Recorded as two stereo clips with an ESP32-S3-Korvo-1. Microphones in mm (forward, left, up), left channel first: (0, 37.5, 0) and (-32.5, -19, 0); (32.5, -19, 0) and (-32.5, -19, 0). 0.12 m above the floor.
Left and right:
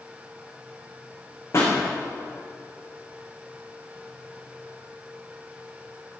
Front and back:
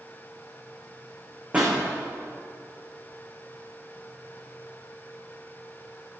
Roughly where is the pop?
Left.